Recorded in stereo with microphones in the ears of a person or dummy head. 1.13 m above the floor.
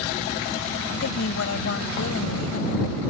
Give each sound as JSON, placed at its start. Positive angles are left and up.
{"t": 1.0, "sound": "a woman speaking", "side_deg": 90}